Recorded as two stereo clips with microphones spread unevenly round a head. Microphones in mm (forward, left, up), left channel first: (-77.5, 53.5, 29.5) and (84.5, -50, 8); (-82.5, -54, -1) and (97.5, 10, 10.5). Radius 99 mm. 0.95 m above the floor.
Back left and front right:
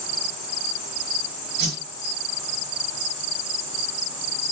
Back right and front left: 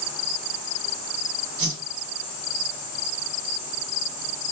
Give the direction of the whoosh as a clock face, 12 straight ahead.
12 o'clock.